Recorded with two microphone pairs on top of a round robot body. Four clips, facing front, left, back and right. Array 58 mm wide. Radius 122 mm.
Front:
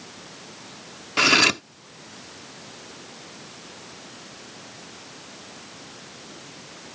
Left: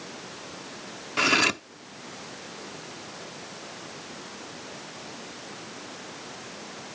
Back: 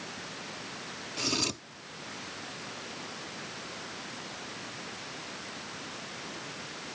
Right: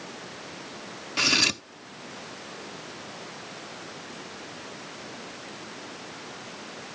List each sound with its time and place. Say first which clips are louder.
1.2 s cutlery clinking: left 4 dB, front 16 dB; 20° left